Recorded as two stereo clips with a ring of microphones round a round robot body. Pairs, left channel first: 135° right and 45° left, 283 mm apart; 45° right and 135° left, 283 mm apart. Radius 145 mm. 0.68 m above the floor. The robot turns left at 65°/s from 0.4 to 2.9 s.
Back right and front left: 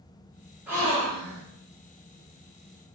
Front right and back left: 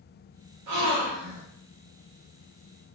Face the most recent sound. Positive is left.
turn(degrees=-15)